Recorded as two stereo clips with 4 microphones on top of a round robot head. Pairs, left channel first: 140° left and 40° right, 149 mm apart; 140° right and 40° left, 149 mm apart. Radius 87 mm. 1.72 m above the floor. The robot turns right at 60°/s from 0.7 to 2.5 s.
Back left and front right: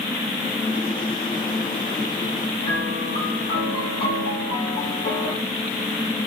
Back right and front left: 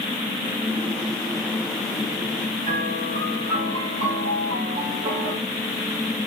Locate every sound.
2.6 s a piano: 85° left, 3 m